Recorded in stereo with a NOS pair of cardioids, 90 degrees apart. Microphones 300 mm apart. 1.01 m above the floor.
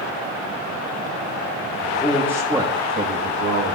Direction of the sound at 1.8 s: 15° left.